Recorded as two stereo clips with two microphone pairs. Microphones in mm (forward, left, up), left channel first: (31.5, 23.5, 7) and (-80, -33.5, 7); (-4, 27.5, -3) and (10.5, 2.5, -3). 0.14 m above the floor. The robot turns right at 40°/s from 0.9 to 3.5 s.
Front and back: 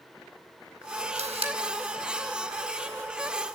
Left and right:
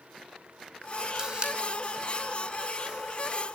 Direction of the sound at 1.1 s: 125° right.